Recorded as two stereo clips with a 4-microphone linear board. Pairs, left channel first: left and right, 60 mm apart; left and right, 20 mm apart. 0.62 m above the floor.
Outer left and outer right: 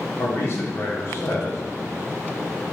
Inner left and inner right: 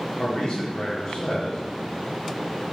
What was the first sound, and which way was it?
A man speaking, 45° left (ahead or behind).